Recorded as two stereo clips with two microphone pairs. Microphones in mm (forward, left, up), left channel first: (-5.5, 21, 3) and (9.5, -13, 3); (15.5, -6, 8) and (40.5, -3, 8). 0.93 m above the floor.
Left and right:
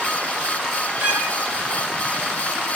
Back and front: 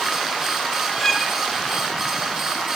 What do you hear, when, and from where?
1.0 s a violin: 95° right, 3 m